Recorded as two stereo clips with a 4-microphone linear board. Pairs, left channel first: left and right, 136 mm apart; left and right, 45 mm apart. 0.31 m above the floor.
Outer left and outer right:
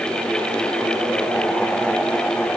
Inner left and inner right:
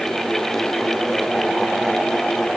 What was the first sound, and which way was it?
Only background noise.